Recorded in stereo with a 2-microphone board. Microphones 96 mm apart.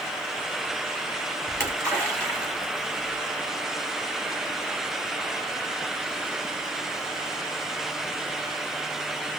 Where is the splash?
35° right (ahead or behind), 4 m.